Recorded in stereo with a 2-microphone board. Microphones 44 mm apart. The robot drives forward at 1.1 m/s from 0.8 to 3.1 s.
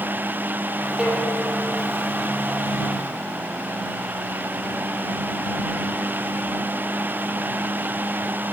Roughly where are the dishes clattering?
Right.